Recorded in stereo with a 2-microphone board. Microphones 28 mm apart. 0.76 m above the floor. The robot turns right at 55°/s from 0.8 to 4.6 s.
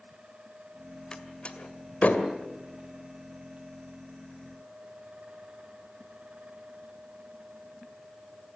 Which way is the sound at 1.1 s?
30° left (ahead or behind).